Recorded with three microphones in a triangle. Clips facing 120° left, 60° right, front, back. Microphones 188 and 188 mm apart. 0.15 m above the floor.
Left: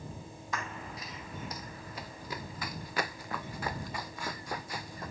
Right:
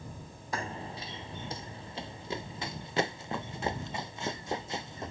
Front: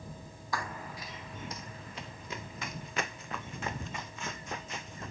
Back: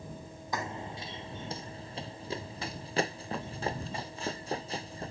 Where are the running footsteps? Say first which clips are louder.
Right 3 dB, back 2 dB; 110° right; by 5.1 s 125° right.